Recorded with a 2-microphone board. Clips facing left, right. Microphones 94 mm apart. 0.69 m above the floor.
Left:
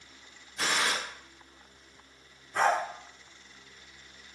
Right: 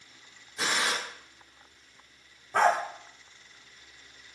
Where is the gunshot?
15° right (ahead or behind), 1.5 m.